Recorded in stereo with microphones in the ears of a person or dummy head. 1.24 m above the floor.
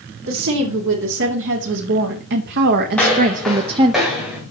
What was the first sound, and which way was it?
A woman speaking, 75° right (ahead or behind).